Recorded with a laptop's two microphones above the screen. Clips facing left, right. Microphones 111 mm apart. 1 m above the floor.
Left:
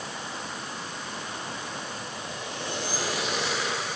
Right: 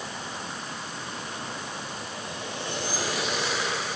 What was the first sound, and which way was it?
Only background noise.